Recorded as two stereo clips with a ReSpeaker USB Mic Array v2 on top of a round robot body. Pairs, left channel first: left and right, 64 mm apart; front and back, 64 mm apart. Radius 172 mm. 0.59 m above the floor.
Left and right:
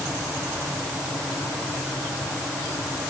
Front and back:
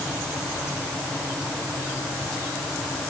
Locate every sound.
Only background noise.